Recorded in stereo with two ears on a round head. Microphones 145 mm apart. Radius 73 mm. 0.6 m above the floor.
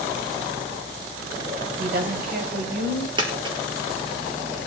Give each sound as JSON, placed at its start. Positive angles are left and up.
{"t": 1.8, "sound": "a woman speaking", "side_deg": -65, "distance_m": 3.5}
{"t": 3.2, "sound": "a dropped coin", "side_deg": -30, "distance_m": 2.5}